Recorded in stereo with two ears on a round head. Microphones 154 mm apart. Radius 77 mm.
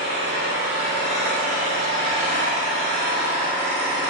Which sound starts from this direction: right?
An engine running, at 0.0 s.